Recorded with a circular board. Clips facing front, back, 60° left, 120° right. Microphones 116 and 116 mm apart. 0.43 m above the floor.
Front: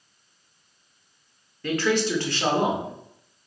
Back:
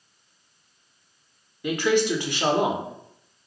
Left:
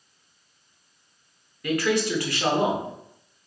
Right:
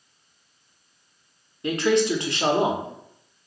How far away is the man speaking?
About 0.9 m.